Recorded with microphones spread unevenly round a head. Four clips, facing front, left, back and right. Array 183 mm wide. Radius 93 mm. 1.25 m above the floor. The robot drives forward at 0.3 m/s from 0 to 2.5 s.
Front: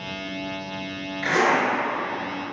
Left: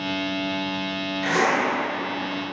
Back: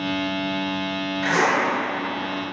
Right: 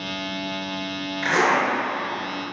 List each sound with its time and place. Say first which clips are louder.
1.2 s a zipper: right 2 dB, even; 135° right, 1.8 m